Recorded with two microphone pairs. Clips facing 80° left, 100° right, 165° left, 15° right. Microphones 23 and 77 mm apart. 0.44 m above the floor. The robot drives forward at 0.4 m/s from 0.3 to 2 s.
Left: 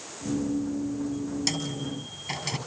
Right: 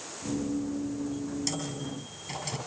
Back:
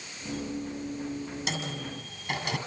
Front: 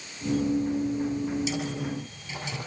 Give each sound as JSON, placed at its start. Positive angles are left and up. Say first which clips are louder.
{"t": 1.5, "sound": "a microwave", "louder": "left 4 dB, front 5 dB", "azimuth_deg": 130, "distance_m": 6.0}